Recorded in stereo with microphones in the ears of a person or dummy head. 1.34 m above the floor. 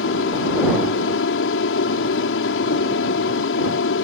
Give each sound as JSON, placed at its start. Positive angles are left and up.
{"t": 0.0, "sound": "an aircraft", "side_deg": 70}